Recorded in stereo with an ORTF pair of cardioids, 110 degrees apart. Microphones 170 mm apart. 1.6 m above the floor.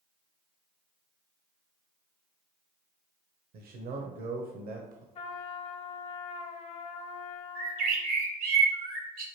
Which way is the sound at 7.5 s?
65° right.